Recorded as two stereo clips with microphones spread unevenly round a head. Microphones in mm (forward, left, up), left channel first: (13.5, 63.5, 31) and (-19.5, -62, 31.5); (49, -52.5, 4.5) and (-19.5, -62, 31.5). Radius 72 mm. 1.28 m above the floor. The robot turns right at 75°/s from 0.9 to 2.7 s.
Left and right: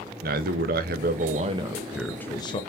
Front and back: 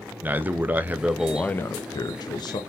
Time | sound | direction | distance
0.2 | a man speaking | 100° right | 0.6 m